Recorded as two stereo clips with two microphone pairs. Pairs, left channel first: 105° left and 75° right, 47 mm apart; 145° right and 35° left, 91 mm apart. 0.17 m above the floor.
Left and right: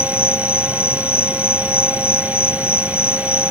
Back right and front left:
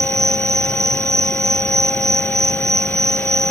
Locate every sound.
0.0 s an insect: 90° left